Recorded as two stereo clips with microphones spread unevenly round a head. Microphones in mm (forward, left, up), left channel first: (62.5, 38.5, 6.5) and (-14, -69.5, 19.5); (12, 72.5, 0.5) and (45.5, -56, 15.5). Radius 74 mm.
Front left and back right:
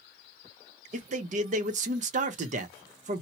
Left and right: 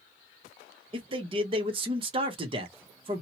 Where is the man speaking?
125° right, 0.8 m.